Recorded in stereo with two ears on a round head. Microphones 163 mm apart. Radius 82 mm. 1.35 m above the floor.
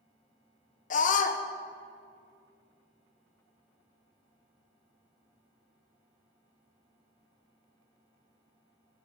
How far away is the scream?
About 0.8 m.